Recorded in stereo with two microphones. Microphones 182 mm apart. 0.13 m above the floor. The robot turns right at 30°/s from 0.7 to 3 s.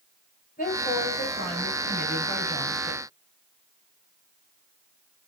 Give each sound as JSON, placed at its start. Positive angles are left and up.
{"t": 0.6, "sound": "a woman speaking", "azimuth_deg": 70, "distance_m": 1.7}